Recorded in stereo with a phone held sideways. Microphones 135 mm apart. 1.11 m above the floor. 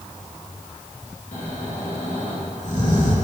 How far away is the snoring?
About 2.5 m.